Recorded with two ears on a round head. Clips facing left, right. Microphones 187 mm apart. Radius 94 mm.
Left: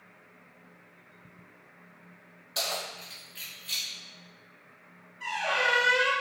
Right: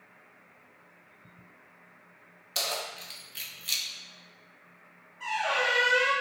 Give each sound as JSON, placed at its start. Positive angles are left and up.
{"t": 2.5, "sound": "keys jangling", "side_deg": -35, "distance_m": 1.0}
{"t": 5.2, "sound": "a squeak", "side_deg": -10, "distance_m": 1.5}